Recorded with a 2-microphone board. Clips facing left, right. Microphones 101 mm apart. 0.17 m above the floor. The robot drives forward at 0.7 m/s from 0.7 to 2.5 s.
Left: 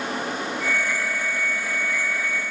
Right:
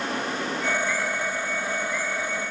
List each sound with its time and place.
Only background noise.